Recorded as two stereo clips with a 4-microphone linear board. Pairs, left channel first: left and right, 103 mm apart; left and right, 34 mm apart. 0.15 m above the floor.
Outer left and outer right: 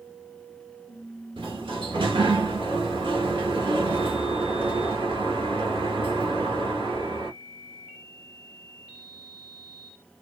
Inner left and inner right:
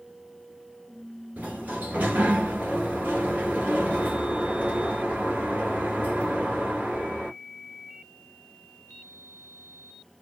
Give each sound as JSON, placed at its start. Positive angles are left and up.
{"t": 1.4, "sound": "a sliding door", "side_deg": -60, "distance_m": 1.3}